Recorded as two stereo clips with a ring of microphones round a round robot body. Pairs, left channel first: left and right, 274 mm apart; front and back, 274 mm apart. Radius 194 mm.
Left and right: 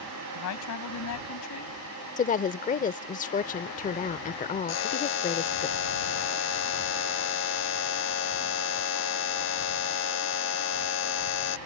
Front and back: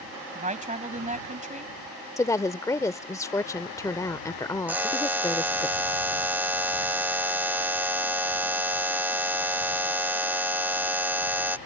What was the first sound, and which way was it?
A woman speaking, 120° left.